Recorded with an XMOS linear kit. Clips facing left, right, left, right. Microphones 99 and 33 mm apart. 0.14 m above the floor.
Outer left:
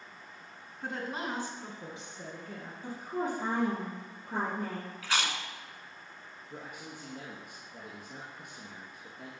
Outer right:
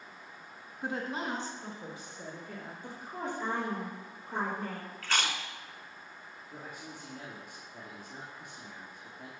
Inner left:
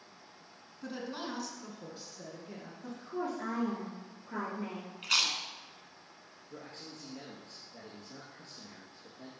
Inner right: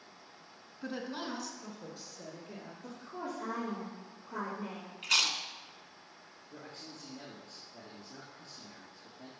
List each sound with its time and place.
0.8 s a woman speaking: 10° right (ahead or behind), 1.6 m; by 2.7 s 35° left (ahead or behind), 2.5 m
2.8 s a woman speaking: 50° left (ahead or behind), 3 m
5.0 s chewing: 10° left (ahead or behind), 1.0 m
6.5 s a man speaking: 60° left (ahead or behind), 2.5 m